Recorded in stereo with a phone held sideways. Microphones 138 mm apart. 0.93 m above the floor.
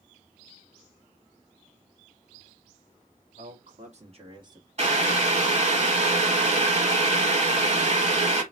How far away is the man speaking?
About 1.7 m.